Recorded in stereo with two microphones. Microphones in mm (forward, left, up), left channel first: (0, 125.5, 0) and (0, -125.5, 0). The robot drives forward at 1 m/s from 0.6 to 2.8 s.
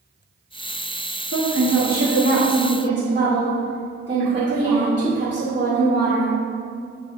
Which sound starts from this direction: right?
A woman speaking, at 1.3 s.